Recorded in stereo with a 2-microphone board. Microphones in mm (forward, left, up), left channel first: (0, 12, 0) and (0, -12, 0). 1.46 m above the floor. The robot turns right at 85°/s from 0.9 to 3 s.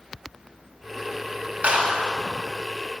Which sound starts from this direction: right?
A clap, at 1.6 s.